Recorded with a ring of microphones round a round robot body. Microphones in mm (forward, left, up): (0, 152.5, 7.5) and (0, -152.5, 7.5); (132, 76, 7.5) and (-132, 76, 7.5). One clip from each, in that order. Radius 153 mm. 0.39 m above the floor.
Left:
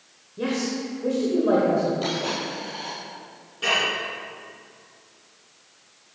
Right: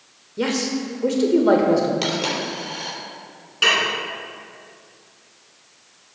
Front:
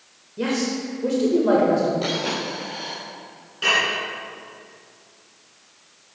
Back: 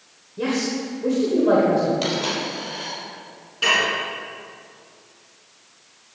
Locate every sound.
0.4 s a man speaking: 75° right, 1.0 m
2.0 s a dropped coin: 115° right, 3.5 m
3.6 s dishes clattering: 95° right, 3 m